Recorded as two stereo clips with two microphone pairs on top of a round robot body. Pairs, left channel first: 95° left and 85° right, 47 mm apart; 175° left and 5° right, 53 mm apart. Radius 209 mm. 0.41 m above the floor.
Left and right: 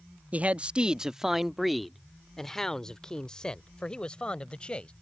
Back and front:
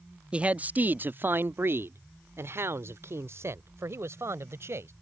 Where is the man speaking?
45° right; by 4.9 s 25° left.